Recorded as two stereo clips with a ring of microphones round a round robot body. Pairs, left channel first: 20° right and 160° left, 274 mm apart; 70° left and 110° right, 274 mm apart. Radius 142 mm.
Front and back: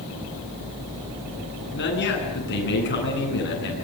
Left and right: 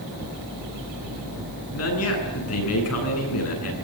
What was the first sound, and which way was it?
A man speaking, 30° left.